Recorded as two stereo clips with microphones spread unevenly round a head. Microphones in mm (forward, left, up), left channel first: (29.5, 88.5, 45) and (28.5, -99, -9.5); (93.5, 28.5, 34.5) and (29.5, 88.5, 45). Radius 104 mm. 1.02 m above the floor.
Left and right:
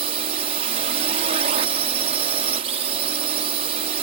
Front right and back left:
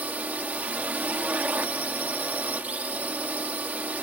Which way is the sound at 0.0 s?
145° right.